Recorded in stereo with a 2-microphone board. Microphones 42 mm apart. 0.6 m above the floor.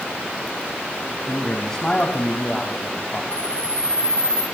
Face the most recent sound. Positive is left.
turn(degrees=-25)  # may be behind; listen again after turning